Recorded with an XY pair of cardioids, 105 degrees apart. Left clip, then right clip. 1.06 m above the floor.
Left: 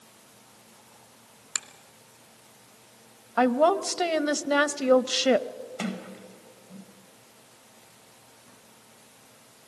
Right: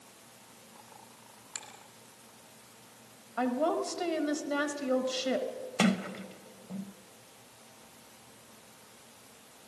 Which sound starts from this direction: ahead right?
A sliding door, at 5.8 s.